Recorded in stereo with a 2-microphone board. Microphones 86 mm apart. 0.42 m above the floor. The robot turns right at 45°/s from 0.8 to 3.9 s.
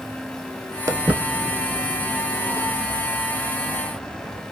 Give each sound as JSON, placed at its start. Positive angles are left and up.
{"t": 0.9, "sound": "footsteps", "side_deg": -40, "distance_m": 0.5}